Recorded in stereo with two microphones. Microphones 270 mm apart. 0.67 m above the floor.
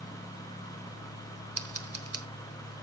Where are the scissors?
55° right (ahead or behind), 1.1 m.